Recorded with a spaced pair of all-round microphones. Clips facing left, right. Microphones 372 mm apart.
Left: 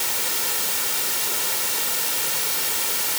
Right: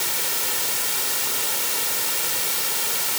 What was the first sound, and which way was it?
Only background noise.